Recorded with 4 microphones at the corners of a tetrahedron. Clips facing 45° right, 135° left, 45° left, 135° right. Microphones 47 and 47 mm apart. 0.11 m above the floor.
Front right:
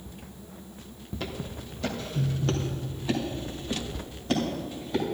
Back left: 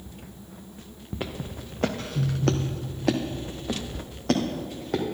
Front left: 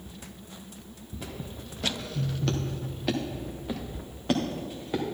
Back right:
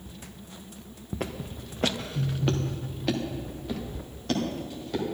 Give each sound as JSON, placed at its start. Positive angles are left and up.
{"t": 1.1, "sound": "footsteps", "azimuth_deg": -155, "distance_m": 1.1}